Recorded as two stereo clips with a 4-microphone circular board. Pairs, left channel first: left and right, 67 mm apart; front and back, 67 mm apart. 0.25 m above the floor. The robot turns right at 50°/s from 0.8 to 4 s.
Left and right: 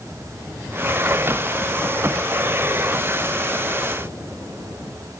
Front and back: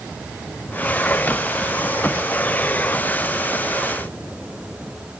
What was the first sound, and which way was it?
Only background noise.